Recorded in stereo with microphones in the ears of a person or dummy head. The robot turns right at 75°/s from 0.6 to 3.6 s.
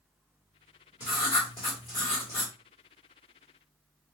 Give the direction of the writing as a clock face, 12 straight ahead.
11 o'clock.